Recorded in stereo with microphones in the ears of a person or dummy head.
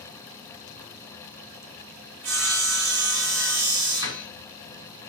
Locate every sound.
2.2 s sawing: 90° right, 2.5 m
4.0 s a door slam: 25° right (ahead or behind), 2.5 m